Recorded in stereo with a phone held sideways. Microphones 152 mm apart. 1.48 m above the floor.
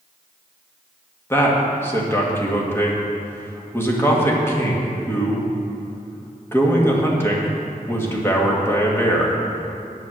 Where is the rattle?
No rattle in this recording.